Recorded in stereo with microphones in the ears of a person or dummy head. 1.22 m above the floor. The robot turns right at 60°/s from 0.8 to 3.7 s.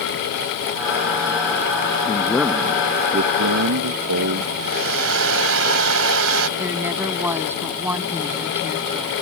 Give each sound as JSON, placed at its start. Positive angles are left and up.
{"t": 2.0, "sound": "a man speaking", "azimuth_deg": 160}
{"t": 4.6, "sound": "a hair dryer", "side_deg": -75}
{"t": 6.6, "sound": "a woman speaking", "side_deg": -10}